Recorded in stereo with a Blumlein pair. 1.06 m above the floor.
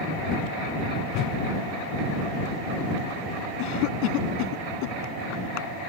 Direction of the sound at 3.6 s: 45° left.